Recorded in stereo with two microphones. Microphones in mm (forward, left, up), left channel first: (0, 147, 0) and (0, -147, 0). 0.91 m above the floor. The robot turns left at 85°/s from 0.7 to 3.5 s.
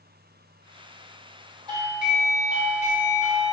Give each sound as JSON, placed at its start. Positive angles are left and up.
{"t": 1.7, "sound": "a doorbell", "side_deg": -15, "distance_m": 0.7}